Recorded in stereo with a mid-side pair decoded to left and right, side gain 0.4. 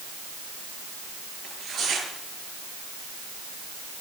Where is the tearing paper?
70° right, 6.5 m.